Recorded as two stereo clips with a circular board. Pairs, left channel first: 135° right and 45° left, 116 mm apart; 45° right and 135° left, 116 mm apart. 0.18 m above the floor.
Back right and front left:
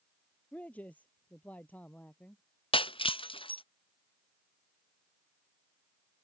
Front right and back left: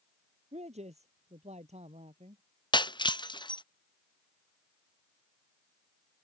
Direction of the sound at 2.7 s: 95° right.